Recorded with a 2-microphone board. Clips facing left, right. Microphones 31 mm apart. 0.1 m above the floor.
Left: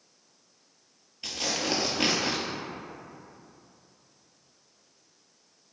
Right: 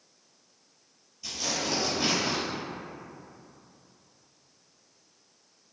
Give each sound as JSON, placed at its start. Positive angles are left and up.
{"t": 1.2, "sound": "tearing paper", "side_deg": 55, "distance_m": 0.8}